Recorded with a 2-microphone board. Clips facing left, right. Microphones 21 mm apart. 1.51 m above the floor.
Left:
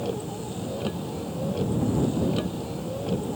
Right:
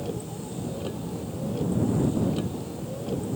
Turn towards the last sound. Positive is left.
turn(degrees=20)  # may be behind; listen again after turning